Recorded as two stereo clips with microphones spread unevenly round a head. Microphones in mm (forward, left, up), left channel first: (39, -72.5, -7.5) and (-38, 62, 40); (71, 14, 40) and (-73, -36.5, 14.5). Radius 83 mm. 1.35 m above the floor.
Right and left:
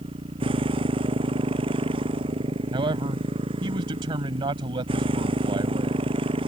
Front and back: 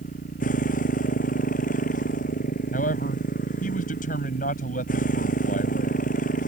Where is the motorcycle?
60° left.